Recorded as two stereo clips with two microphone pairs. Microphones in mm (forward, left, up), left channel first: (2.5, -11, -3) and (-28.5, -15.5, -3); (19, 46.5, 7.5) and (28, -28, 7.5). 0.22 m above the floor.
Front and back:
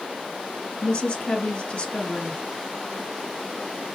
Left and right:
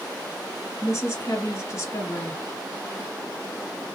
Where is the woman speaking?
50° left, 2 m.